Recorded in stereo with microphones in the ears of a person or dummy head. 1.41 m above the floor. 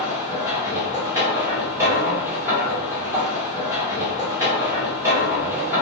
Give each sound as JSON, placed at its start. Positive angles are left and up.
{"t": 0.0, "sound": "a machine running", "side_deg": -10, "distance_m": 0.9}